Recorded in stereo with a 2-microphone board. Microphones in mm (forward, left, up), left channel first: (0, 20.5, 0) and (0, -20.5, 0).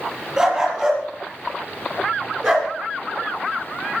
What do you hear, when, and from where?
0.4 s a dog barking: 5° right (ahead or behind), 5.5 m; by 2.7 s 5° left (ahead or behind), 3 m